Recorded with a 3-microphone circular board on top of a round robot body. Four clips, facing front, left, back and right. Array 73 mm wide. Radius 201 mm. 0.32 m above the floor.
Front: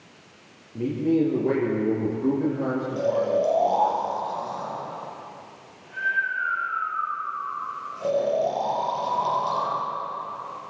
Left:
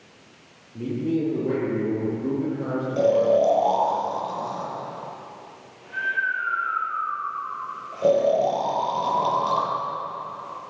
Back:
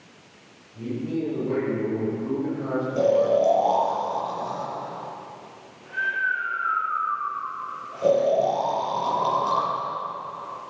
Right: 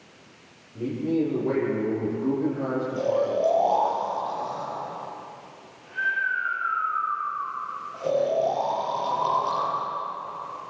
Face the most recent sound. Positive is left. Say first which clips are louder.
# left 7 dB, back 4 dB
turn(degrees=110)